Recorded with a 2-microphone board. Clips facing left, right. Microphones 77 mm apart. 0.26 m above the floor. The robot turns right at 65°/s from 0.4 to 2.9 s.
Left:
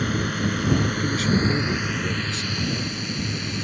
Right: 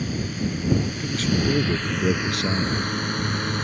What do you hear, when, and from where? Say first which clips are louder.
0.0 s a drone: left 3 dB; 60° left (ahead or behind); by 3.6 s 50° right (ahead or behind)
1.0 s a man speaking: left 1 dB; 165° left; by 2.9 s 75° right